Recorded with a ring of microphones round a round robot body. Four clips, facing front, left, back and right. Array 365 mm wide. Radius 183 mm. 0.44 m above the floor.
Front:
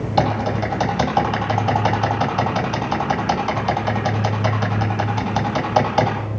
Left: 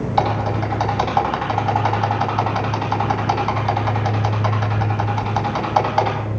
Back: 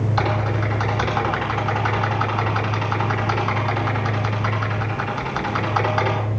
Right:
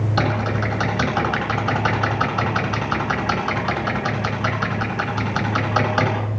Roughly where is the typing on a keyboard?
Ahead right.